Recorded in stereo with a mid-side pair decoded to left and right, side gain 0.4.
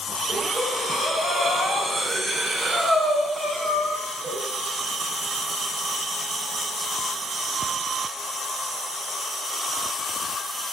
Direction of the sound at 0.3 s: 40° right.